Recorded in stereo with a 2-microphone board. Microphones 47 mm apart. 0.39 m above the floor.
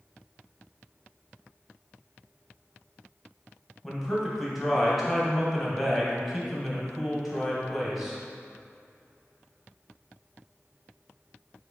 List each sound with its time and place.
3.8 s a man speaking: centre (ahead or behind), 2 m